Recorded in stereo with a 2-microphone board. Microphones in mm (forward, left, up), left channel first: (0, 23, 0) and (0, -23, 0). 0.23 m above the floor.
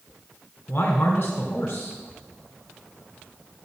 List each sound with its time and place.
0.7 s a man speaking: 60° left (ahead or behind), 2.5 m